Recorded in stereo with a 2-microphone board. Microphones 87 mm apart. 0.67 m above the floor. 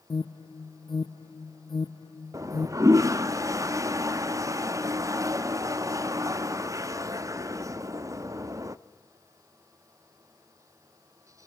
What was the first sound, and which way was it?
An alarm, 60° left (ahead or behind).